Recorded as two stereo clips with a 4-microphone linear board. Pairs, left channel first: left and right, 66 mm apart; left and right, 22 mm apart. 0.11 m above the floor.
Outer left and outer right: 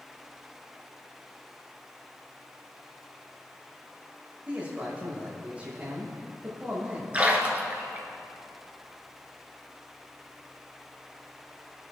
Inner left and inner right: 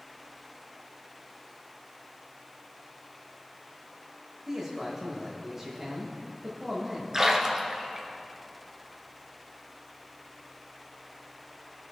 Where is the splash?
20° right (ahead or behind), 1.7 m.